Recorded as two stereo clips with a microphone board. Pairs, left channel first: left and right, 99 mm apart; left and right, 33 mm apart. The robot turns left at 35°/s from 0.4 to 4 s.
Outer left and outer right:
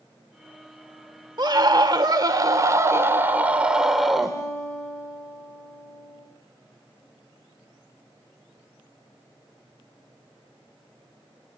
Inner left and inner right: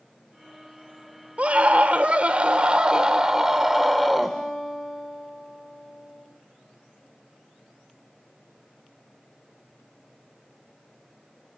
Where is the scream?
85° right, 1.8 m; by 4.4 s 175° right, 1.8 m.